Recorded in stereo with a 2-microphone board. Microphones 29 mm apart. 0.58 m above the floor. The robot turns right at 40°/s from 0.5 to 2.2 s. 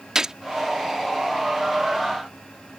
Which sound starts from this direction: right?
A gunshot, at 0.1 s.